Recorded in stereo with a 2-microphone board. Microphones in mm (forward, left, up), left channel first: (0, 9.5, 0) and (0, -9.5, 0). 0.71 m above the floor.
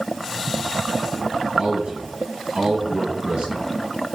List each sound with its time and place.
1.6 s a man speaking: 80° right, 5 m